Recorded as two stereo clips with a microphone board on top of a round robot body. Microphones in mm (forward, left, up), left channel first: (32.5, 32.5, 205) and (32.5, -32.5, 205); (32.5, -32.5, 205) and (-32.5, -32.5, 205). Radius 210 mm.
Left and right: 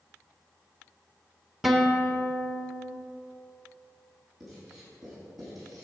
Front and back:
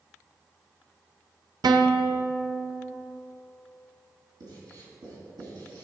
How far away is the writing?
About 4 m.